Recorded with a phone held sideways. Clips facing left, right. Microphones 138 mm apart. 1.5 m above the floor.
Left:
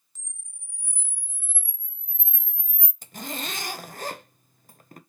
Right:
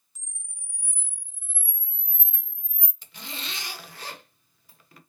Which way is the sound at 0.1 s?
10° right (ahead or behind).